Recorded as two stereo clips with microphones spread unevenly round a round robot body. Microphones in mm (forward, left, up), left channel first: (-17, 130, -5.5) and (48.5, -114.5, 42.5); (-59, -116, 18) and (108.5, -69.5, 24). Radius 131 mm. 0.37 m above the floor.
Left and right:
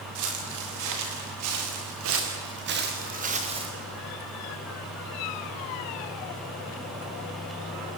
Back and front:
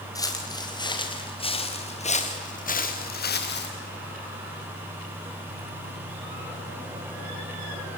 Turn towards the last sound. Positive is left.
turn(degrees=-145)